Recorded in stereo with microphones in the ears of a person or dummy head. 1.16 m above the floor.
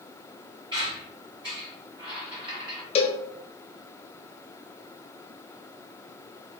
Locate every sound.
0.7 s a squeak: 25° right (ahead or behind), 1.8 m
3.0 s a cowbell: 30° left (ahead or behind), 0.5 m